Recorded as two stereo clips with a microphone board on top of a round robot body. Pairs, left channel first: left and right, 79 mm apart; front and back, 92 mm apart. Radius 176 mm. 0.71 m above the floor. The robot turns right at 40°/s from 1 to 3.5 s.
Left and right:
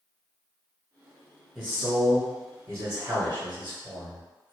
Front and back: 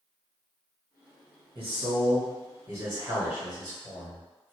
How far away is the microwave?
No microwave in this recording.